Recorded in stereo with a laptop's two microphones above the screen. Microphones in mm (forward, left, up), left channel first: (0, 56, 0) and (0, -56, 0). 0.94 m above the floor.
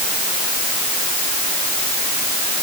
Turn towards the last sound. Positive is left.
No sound to turn to.